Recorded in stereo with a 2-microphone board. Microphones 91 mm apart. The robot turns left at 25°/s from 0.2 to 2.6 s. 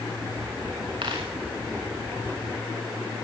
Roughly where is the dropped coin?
Right.